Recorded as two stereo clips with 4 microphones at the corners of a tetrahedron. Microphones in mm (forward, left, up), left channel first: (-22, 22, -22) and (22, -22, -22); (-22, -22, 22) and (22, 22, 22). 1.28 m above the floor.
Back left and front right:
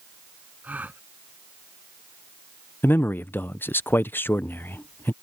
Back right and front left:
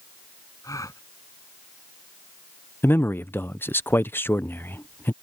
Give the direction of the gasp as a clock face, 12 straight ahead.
4 o'clock.